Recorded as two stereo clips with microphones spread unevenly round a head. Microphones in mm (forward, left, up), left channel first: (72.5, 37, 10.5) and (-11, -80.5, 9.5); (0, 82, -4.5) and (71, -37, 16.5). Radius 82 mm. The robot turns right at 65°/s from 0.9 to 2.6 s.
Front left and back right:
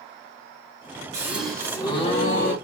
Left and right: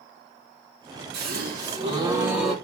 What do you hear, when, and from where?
1.1 s a gasp: 60° right, 3 m; by 2.5 s 35° left, 3 m